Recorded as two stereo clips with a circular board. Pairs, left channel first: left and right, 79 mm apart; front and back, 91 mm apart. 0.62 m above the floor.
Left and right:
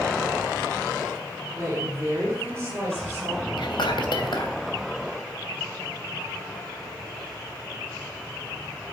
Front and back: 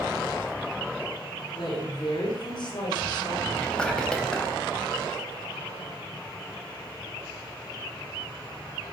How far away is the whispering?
About 3 m.